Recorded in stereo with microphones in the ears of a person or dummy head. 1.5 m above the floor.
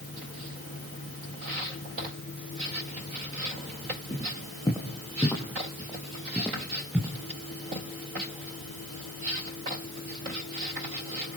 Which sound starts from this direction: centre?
Footsteps, at 4.1 s.